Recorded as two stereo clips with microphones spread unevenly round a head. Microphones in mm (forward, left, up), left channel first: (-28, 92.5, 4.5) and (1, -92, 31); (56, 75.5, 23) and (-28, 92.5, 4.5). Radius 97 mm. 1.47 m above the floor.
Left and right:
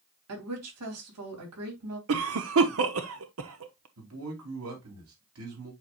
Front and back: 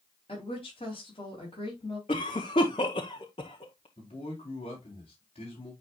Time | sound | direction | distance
0.3 | a woman speaking | 75° right | 3 m
2.1 | a cough | 65° right | 0.9 m
4.0 | a man speaking | 65° right | 3.5 m